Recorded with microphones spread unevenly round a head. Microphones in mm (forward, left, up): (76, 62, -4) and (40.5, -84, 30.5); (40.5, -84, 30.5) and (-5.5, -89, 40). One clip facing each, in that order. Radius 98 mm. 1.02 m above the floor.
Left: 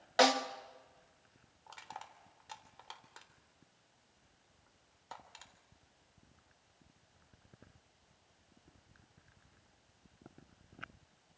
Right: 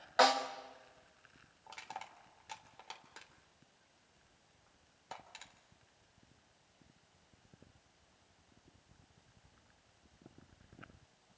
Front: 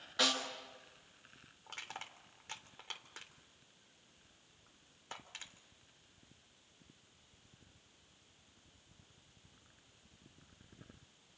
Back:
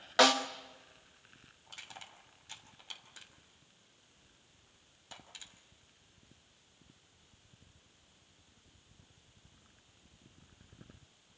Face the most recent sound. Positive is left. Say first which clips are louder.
# right 2 dB, front 3 dB
turn(degrees=-30)